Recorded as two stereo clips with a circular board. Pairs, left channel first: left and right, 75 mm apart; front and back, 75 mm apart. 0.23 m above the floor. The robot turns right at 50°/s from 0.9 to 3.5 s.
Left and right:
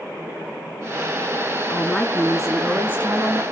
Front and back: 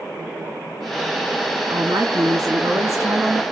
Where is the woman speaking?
145° left, 3 m; by 3.4 s 130° right, 3 m.